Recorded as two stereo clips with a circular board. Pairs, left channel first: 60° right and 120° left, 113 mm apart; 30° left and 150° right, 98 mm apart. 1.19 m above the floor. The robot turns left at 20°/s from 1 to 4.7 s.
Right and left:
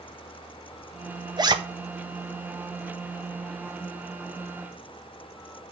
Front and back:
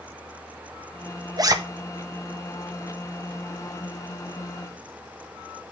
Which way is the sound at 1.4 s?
170° left.